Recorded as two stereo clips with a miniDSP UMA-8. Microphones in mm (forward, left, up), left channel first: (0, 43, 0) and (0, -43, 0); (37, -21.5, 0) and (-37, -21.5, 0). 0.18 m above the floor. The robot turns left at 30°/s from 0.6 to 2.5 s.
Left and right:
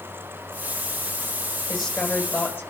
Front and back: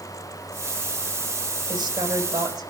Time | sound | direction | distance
1.7 | a woman speaking | 175° right | 8.5 m